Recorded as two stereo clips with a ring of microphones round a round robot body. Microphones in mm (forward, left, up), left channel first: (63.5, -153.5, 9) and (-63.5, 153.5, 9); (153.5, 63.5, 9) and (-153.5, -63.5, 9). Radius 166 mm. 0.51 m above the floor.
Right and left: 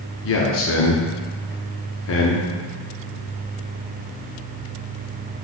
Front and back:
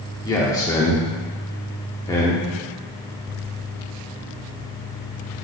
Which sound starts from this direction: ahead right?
A man speaking, at 0.2 s.